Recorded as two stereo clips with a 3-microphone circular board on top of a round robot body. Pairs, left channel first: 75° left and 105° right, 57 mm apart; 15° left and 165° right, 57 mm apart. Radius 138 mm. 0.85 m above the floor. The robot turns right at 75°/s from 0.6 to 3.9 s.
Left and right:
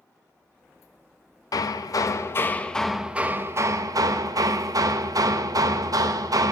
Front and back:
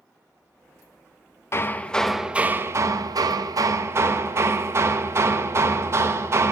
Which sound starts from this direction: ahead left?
Hammering, at 1.5 s.